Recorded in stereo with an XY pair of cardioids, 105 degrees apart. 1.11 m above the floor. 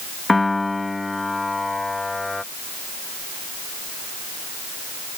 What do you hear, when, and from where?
0.3 s a piano: 15° left